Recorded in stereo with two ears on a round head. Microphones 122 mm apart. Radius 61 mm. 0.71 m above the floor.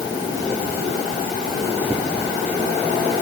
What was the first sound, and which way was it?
Only background noise.